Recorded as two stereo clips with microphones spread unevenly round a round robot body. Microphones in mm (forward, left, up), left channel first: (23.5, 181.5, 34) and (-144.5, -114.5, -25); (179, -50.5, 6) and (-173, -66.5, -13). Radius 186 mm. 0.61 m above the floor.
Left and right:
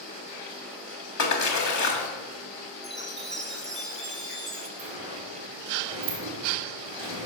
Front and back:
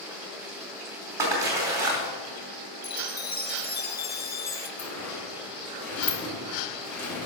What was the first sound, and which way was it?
A splash, 100° left.